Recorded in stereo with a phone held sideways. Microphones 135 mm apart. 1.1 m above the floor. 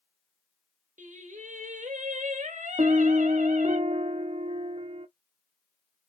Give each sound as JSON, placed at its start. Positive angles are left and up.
{"t": 1.0, "sound": "singing", "side_deg": -65, "distance_m": 1.7}
{"t": 2.8, "sound": "a piano", "side_deg": -45, "distance_m": 0.6}